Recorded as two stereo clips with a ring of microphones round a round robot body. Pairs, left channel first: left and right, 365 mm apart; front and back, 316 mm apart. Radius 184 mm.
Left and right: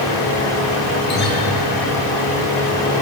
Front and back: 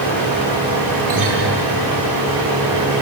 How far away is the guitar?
About 8 m.